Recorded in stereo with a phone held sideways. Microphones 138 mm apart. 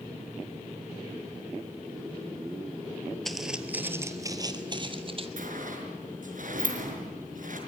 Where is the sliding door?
70° right (ahead or behind), 4.5 m.